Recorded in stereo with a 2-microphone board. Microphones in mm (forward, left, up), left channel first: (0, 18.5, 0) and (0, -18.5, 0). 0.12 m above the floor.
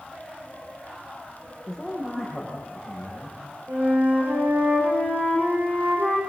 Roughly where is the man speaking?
Centre.